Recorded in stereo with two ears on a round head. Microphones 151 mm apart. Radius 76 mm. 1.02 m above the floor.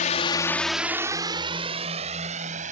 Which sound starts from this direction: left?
A drone, at 0.0 s.